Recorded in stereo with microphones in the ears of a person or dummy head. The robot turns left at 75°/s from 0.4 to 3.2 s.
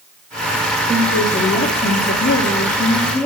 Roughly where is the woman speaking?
Behind right.